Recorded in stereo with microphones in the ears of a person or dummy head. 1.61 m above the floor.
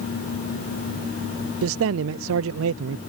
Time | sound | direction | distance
1.6 | a man speaking | 70° right (ahead or behind) | ?